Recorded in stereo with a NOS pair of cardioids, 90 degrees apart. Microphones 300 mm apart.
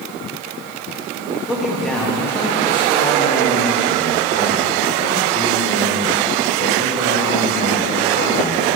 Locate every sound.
1.5 s a man speaking: 5° right, 1.8 m; by 8.7 s 50° left, 4.5 m